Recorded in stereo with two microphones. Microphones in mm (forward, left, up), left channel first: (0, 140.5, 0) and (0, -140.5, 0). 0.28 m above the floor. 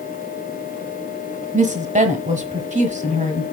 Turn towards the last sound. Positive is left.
turn(degrees=-25)  # may be behind; listen again after turning